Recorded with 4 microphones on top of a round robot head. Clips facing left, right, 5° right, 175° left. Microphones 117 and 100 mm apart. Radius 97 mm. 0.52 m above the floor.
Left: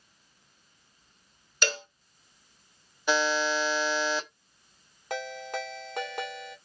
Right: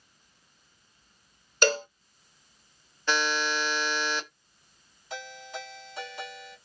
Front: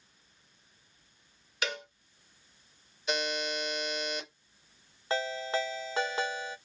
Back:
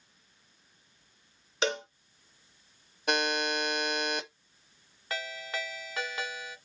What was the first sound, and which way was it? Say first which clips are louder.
A cowbell: right 7 dB, back 6 dB; 130° right.